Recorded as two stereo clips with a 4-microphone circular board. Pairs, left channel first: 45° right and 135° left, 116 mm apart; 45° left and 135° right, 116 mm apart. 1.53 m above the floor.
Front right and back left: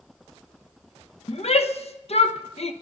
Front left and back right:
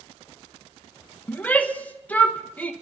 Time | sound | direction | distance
1.3 | a shout | 30° right | 1.1 m